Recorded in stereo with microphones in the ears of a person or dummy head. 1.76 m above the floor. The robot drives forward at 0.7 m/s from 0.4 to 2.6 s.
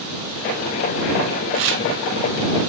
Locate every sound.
1.5 s tearing paper: 60° right (ahead or behind), 0.6 m; by 1.8 s 55° right (ahead or behind), 0.6 m